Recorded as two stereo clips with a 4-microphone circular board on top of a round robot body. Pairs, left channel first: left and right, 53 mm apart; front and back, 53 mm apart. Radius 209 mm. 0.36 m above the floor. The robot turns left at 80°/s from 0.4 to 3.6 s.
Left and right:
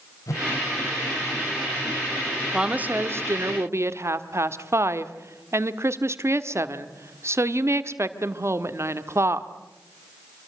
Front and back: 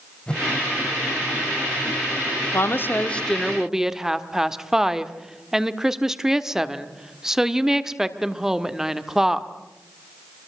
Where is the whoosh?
70° left, 1.9 m; by 0.5 s 65° left, 1.9 m.